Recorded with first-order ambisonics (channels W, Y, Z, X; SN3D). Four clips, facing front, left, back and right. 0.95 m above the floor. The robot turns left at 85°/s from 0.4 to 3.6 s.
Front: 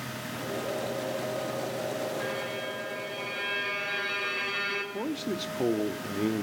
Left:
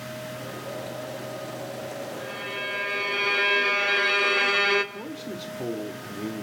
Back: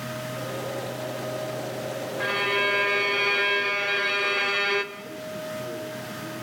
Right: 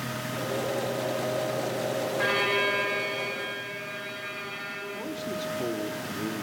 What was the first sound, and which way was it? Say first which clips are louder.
A violin: right 10 dB, back 9 dB; 125° right.